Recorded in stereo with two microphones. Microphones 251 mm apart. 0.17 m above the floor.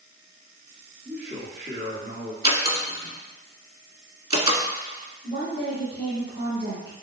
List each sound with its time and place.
1.1 s a man speaking: 45° right (ahead or behind), 1.3 m
2.4 s a door slam: 25° right (ahead or behind), 1.4 m
5.2 s a woman speaking: 20° right (ahead or behind), 1.4 m